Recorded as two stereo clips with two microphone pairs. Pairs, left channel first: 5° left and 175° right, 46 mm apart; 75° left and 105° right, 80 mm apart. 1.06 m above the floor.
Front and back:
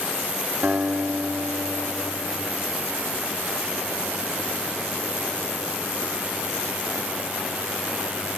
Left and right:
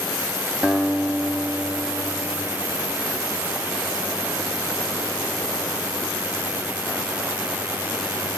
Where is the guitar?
175° right, 1.3 m.